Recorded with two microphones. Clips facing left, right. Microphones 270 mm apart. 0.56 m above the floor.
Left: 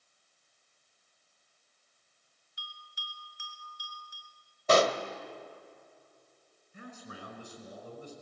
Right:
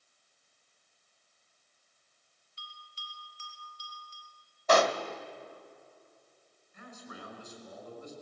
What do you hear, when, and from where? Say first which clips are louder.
2.6 s a bell: even; 15° left (ahead or behind), 2.5 m
4.7 s a pop: left 1 dB; 30° left (ahead or behind), 1.3 m
6.7 s a man speaking: left 1 dB; 35° left (ahead or behind), 5.5 m